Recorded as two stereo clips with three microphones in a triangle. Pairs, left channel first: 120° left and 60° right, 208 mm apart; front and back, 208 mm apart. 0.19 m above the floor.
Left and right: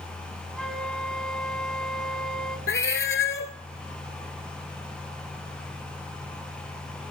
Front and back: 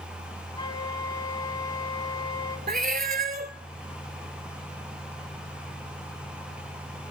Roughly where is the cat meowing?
Behind left.